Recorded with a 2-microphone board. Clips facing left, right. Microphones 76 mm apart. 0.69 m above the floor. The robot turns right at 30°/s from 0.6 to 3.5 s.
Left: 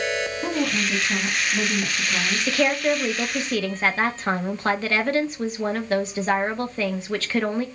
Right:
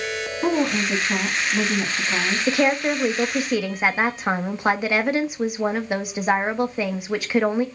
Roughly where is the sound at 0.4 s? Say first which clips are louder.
Right 7 dB; behind right.